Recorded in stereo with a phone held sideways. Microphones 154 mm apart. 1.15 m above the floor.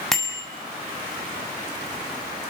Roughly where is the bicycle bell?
Centre.